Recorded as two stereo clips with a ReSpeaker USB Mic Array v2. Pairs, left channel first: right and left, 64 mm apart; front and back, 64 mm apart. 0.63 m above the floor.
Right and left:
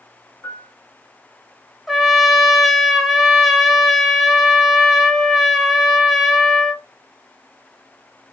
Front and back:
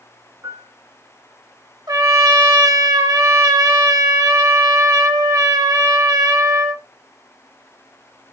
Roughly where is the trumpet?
Behind.